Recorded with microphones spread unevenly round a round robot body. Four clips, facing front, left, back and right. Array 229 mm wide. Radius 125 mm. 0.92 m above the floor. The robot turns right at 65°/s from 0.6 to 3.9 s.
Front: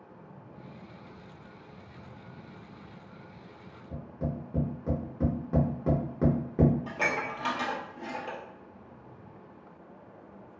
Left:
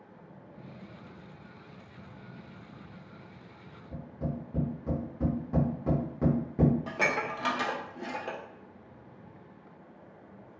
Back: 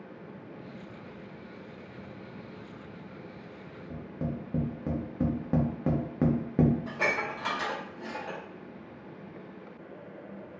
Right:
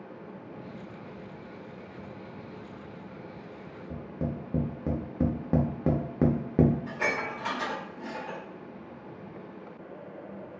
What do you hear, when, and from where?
3.9 s tapping: 115° right, 0.6 m
6.9 s dishes clattering: 75° left, 0.5 m